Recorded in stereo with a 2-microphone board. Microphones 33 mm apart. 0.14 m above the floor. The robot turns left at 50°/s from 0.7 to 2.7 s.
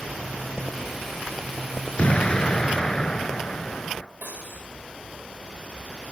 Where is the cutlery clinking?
65° right (ahead or behind), 9 m.